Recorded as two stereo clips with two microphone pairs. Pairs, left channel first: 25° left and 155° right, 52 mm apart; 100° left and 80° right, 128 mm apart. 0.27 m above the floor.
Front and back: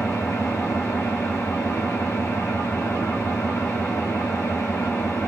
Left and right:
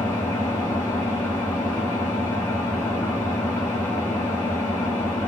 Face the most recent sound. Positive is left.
turn(degrees=30)